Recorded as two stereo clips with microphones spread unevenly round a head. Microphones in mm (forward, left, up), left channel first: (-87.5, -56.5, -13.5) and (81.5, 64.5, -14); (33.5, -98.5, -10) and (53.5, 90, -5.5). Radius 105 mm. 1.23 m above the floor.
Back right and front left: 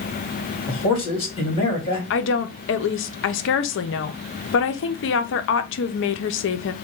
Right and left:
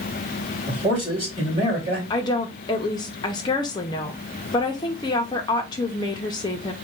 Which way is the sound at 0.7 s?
150° left.